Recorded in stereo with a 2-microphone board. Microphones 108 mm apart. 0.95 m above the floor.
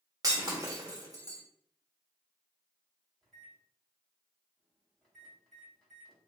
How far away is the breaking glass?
About 1.2 m.